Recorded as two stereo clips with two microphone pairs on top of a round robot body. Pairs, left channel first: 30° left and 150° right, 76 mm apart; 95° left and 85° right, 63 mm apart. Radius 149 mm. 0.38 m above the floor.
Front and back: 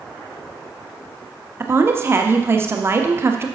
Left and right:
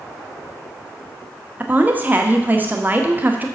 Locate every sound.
1.6 s a woman speaking: 125° right, 1.2 m